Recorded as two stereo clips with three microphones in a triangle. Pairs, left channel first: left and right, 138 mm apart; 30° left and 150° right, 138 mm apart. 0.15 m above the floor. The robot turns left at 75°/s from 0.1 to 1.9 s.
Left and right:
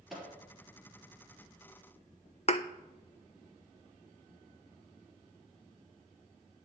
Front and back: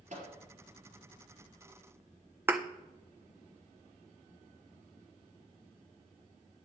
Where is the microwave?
175° right, 3 m; by 0.3 s 165° left, 3 m.